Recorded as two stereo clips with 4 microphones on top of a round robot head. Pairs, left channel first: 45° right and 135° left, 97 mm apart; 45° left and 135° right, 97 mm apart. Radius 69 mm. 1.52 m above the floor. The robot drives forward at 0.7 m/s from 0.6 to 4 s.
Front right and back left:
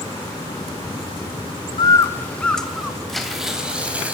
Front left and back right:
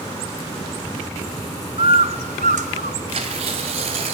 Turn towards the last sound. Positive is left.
turn(degrees=-150)